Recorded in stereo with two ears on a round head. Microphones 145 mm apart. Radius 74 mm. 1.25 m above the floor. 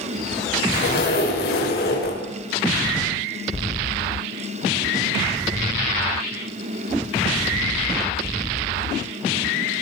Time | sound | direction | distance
0.7 | a zipper | 60° left (ahead or behind) | 5.5 m